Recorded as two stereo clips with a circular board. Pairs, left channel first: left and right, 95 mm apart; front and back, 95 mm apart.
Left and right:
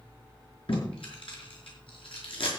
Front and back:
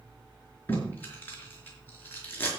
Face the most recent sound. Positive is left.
turn(degrees=70)